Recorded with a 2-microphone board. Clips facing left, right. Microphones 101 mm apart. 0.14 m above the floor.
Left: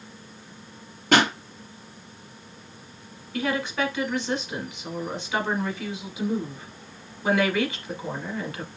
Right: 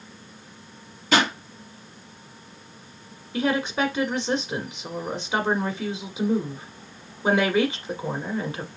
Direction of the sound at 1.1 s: 55° left (ahead or behind).